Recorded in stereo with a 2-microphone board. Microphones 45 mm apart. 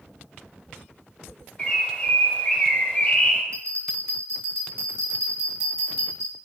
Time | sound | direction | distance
1.6 | a bird | 30° left (ahead or behind) | 1.7 m
3.5 | a bell | 50° right (ahead or behind) | 2.5 m